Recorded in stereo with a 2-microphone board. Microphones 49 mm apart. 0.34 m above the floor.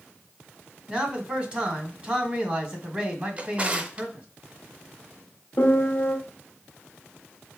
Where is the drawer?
25° right (ahead or behind), 0.6 m.